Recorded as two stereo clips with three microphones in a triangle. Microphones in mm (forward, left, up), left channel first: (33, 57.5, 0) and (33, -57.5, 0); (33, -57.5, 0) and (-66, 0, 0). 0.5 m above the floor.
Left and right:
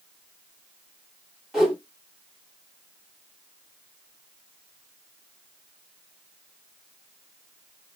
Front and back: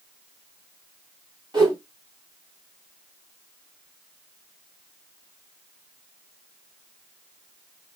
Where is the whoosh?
175° right, 1.6 m.